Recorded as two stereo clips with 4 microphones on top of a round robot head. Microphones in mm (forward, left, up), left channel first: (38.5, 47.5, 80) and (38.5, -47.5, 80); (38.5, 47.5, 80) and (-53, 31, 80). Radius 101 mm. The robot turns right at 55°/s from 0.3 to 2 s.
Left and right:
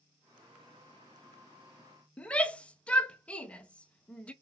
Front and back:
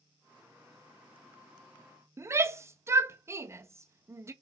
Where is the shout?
155° left, 0.7 m.